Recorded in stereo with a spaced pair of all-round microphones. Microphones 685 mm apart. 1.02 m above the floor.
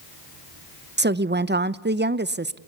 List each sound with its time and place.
1.0 s a woman speaking: 15° right (ahead or behind), 0.5 m